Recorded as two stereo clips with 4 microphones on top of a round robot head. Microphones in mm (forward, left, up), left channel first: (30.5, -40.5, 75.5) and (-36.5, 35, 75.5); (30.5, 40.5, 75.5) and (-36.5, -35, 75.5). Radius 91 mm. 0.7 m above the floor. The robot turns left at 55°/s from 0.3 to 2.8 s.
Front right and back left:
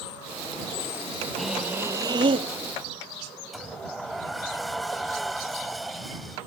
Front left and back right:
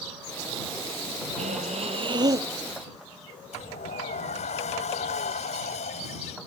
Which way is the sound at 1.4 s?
135° right.